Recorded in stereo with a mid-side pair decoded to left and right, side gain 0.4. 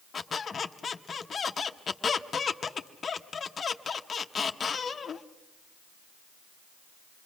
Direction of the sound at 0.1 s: 45° left.